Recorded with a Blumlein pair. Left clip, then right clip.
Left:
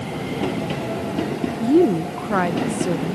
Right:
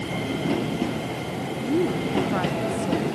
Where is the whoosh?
No whoosh in this recording.